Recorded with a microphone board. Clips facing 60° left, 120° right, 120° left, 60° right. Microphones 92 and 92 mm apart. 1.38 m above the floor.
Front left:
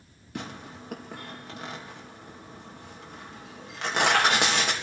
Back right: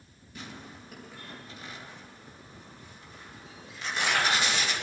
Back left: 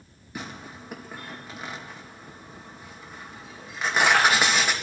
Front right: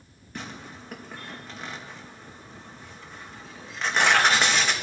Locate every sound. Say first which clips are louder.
0.3 s tearing paper: front left 6 dB, back left 1 dB; 40° left, 2 m